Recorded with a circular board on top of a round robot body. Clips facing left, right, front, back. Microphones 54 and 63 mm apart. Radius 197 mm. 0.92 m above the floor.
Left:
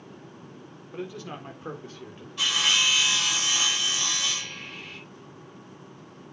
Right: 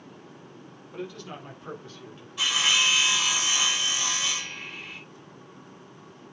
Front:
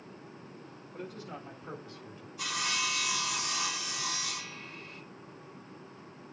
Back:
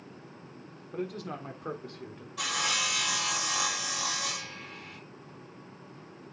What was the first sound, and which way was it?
A man speaking, 165° left.